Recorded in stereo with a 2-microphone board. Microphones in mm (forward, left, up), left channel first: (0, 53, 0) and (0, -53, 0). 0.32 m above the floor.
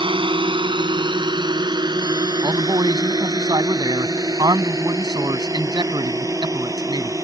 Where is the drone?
50° right (ahead or behind); by 7.2 s 25° right (ahead or behind).